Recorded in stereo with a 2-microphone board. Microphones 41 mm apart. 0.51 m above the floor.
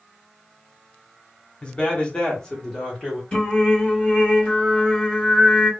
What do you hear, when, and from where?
1.6 s a man speaking: 30° left (ahead or behind), 1.2 m; by 3.2 s 10° left (ahead or behind), 1.4 m
3.3 s singing: 25° left (ahead or behind), 1.4 m